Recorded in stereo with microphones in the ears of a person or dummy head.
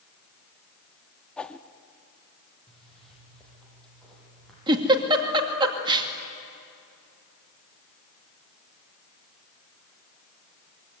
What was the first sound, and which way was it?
A whoosh, 5° left (ahead or behind).